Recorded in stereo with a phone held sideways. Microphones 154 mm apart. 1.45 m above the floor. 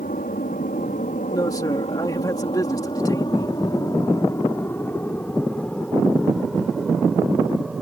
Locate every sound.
0.0 s an aircraft: 70° left (ahead or behind); by 7.8 s 5° right (ahead or behind)
1.3 s a man speaking: 25° left (ahead or behind)